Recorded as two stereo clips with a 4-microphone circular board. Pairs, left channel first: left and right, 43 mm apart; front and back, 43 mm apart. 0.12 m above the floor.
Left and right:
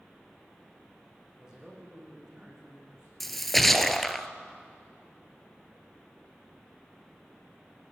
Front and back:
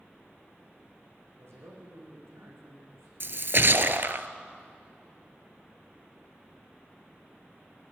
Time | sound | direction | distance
1.4 | a man speaking | 165° right | 6.5 m
3.2 | a splash | 175° left | 0.8 m